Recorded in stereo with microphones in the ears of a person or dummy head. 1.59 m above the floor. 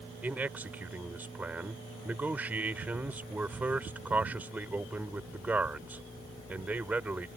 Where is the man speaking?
10° right (ahead or behind).